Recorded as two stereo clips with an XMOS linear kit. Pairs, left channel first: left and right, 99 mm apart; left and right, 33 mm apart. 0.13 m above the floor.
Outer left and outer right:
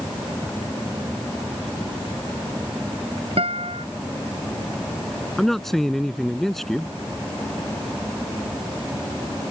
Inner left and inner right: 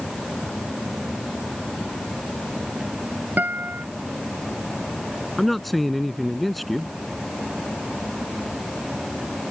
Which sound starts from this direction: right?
A guitar, at 3.4 s.